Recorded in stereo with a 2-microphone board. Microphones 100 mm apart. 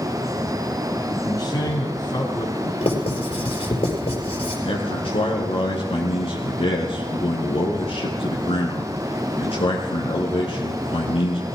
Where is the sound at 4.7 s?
70° left (ahead or behind), 2.5 m.